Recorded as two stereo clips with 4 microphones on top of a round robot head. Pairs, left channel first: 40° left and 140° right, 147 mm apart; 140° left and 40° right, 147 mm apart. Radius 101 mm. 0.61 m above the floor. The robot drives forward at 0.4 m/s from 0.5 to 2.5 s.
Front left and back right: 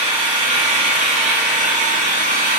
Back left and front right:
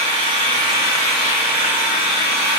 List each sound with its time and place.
0.0 s an engine running: 95° right, 1.9 m; by 2.6 s 120° right, 2 m